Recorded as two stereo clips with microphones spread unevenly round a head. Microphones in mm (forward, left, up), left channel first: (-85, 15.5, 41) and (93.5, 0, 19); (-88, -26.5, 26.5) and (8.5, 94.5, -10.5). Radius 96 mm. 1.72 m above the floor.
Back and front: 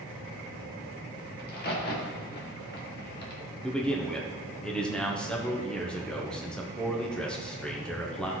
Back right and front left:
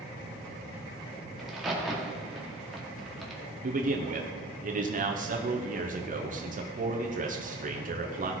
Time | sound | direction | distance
1.4 | a crack | 150° left | 1.8 m
3.6 | a man speaking | 90° left | 1.2 m